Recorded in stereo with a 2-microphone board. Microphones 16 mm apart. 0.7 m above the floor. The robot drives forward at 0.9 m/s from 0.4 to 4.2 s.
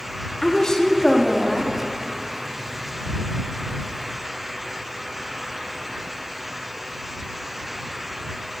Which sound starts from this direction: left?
A woman speaking, at 0.4 s.